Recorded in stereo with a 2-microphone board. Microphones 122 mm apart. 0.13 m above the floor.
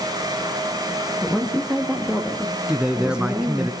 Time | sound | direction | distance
1.2 | a woman speaking | 5° right (ahead or behind) | 5.5 m
2.7 | a man speaking | 10° right (ahead or behind) | 1.1 m